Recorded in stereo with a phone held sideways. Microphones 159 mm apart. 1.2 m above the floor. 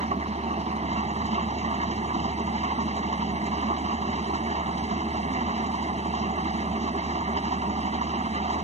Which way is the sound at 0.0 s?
45° right (ahead or behind).